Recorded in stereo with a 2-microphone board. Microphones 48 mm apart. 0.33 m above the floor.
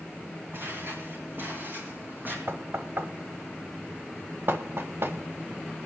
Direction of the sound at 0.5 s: 50° right (ahead or behind).